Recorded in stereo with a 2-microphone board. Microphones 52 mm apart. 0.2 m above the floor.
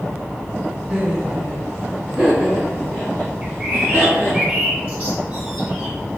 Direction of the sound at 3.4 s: 25° right (ahead or behind).